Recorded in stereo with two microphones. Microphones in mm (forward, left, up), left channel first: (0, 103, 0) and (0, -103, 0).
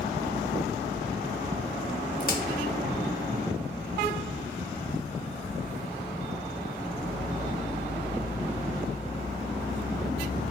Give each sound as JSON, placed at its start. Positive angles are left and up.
{"t": 2.2, "sound": "a crack", "side_deg": 50, "distance_m": 0.6}